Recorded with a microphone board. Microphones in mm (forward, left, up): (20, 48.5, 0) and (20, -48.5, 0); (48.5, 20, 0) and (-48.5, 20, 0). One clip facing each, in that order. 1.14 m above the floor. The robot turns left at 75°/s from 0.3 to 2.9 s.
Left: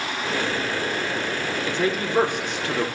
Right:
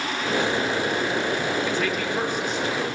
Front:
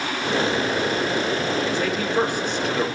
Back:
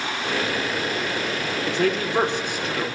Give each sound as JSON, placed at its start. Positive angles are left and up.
{"t": 1.6, "sound": "a man speaking", "azimuth_deg": 165, "distance_m": 2.5}